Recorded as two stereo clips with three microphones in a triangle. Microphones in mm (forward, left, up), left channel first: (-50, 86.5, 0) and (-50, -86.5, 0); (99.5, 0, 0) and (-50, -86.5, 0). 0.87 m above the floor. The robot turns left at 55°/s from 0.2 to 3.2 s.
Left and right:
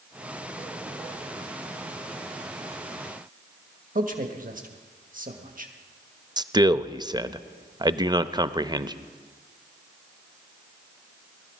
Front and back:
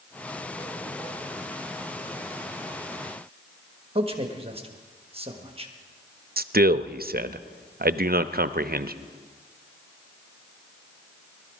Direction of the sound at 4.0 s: 105° right.